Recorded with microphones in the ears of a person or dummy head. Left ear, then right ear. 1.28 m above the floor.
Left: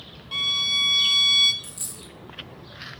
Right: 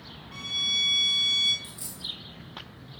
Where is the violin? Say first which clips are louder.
Left 5 dB; 40° left (ahead or behind), 0.7 m.